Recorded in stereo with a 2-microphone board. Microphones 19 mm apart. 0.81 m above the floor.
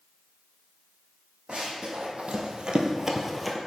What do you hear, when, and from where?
1.5 s running footsteps: 60° right (ahead or behind), 2.5 m; by 3.6 s centre (ahead or behind), 1.1 m